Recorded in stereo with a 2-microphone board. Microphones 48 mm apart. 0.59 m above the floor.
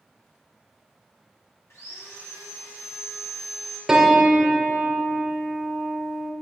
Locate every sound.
1.7 s sawing: 65° left (ahead or behind), 1.4 m
3.9 s a piano: 10° right (ahead or behind), 0.6 m